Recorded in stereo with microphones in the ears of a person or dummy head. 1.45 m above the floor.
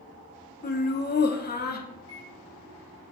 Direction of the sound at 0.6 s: 45° left (ahead or behind).